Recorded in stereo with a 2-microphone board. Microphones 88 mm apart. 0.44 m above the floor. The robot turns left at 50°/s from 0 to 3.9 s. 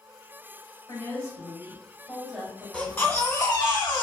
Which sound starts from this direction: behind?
A baby crying, at 2.7 s.